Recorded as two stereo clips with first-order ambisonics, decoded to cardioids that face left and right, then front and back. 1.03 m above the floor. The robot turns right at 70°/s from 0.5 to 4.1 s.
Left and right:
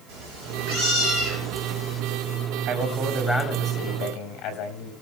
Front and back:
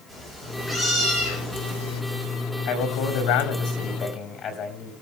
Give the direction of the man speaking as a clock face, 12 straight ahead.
1 o'clock.